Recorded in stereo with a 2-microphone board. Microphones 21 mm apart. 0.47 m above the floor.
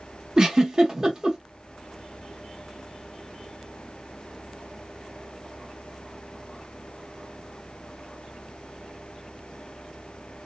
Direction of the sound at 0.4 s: 25° right (ahead or behind).